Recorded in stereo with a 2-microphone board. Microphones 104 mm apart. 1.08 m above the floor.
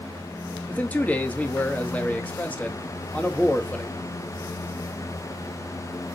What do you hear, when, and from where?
0.7 s a man speaking: 15° left (ahead or behind), 1.6 m